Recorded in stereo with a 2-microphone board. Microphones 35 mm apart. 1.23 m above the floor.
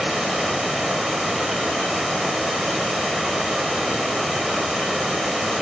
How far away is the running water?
About 3.5 m.